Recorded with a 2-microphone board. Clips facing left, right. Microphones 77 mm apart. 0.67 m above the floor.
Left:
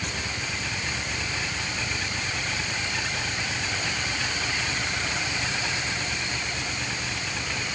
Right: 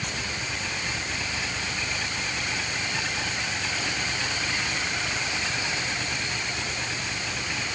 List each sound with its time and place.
Only background noise.